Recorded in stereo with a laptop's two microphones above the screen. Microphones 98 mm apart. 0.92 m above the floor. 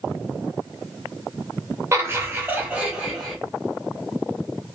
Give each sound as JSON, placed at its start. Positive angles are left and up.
{"t": 1.9, "sound": "laughter", "side_deg": -25, "distance_m": 1.0}